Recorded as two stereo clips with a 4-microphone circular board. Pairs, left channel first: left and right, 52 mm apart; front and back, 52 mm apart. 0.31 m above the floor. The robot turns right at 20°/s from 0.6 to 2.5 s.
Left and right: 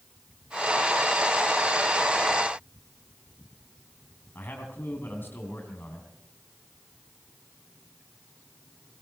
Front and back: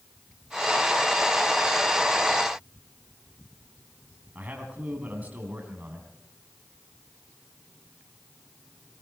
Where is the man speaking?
125° left, 3 m.